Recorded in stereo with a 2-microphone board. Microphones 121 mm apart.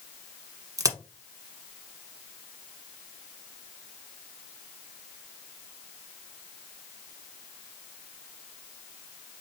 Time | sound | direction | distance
0.8 | a crack | 30° right (ahead or behind) | 1.0 m